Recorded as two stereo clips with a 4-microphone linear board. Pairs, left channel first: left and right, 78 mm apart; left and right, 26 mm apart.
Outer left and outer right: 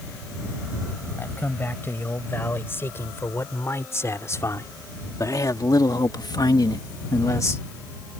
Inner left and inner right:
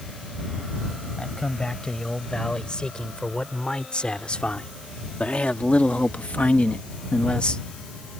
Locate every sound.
1.2 s a man speaking: 25° left (ahead or behind); by 7.7 s 35° left (ahead or behind)